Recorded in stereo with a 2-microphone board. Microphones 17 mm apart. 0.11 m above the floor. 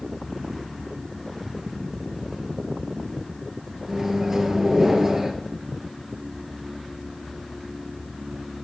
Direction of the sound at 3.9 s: 25° right (ahead or behind).